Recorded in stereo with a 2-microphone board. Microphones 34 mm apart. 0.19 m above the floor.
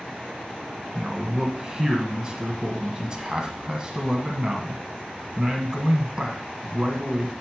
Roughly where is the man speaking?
Right.